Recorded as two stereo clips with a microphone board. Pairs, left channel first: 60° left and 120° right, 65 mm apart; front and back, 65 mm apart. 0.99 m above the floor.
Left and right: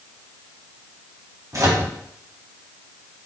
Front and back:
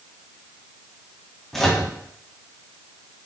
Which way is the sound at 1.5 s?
85° right.